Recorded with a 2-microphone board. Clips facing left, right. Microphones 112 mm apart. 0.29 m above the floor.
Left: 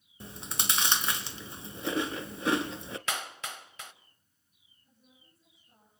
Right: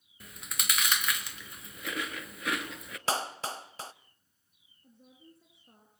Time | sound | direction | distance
0.2 | chewing | 30° left (ahead or behind) | 1.2 m
3.1 | a clap | 35° right (ahead or behind) | 0.8 m
4.8 | a woman speaking | 60° right (ahead or behind) | 5 m